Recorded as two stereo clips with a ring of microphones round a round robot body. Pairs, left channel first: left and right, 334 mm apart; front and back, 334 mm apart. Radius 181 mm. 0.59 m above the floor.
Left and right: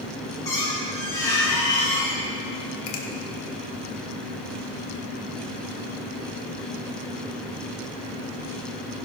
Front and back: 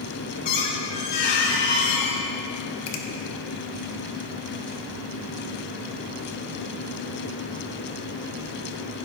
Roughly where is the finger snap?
Ahead left.